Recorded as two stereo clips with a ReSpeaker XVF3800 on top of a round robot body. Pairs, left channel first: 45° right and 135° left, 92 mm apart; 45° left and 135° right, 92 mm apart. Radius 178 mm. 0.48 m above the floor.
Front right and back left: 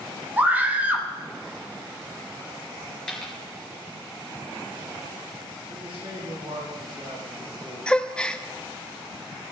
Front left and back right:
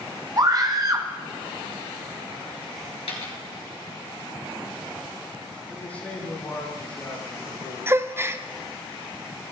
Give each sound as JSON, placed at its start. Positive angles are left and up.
{"t": 0.4, "sound": "a scream", "azimuth_deg": -160, "distance_m": 1.7}
{"t": 3.1, "sound": "a dropped coin", "azimuth_deg": 35, "distance_m": 2.5}
{"t": 5.7, "sound": "a man speaking", "azimuth_deg": 120, "distance_m": 7.0}
{"t": 7.9, "sound": "a gasp", "azimuth_deg": -115, "distance_m": 0.9}